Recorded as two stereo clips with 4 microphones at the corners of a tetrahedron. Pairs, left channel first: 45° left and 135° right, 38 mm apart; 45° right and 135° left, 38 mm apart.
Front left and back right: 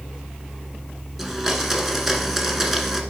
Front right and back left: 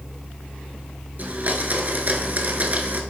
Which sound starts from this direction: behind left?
A blender, at 1.2 s.